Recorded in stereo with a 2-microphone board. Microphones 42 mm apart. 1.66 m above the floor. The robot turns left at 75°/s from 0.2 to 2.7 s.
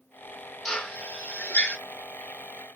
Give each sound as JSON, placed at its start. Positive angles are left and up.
{"t": 0.7, "sound": "a drill", "side_deg": 5, "distance_m": 0.9}